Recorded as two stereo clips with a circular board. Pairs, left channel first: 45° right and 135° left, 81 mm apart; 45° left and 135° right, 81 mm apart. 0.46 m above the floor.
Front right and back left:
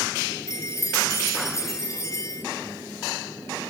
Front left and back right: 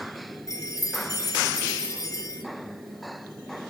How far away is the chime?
About 7 m.